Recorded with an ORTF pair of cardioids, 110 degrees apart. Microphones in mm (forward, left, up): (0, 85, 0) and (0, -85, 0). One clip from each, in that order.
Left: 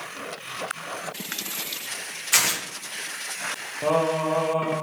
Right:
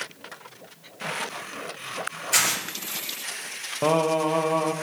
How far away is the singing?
About 0.5 m.